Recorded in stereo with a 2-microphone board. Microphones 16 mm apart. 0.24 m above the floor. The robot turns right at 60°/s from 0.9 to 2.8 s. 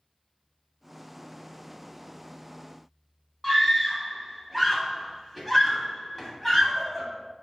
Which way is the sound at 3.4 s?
10° left (ahead or behind).